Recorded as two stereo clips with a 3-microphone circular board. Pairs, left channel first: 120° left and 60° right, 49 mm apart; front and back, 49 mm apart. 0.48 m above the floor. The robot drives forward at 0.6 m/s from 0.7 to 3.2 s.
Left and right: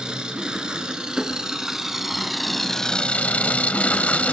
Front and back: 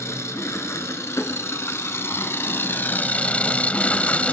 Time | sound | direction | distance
0.0 | an engine running | 15° left | 1.8 m